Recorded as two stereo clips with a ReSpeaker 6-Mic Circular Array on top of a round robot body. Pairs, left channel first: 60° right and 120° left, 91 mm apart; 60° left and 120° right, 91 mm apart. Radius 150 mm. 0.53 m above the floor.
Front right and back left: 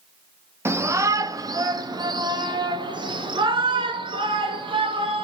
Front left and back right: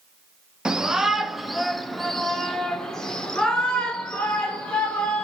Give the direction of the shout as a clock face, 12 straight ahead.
7 o'clock.